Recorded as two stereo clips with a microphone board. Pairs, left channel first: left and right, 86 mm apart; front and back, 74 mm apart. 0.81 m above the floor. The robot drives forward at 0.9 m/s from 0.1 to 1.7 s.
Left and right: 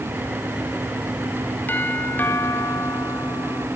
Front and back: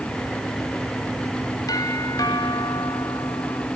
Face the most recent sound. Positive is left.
turn(degrees=25)